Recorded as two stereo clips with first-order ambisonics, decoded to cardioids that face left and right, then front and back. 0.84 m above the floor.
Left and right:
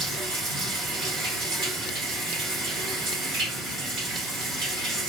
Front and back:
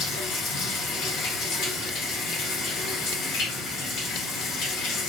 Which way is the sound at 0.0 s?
45° right.